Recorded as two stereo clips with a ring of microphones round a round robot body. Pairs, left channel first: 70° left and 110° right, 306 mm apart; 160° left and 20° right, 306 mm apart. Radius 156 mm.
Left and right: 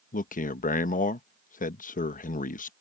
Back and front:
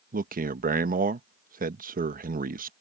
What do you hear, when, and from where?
0.1 s a man speaking: 20° left